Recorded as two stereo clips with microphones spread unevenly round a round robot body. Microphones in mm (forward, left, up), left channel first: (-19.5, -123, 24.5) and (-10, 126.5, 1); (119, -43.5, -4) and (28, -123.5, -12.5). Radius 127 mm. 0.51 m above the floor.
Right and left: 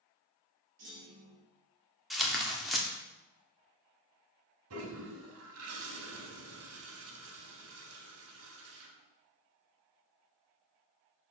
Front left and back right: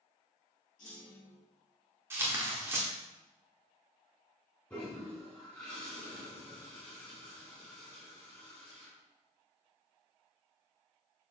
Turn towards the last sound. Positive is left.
turn(degrees=120)